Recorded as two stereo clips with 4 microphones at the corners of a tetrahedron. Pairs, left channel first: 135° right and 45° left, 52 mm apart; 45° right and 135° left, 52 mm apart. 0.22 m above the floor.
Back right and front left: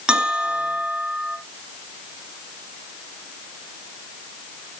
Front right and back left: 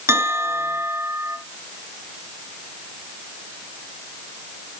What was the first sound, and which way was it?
A bell, 120° left.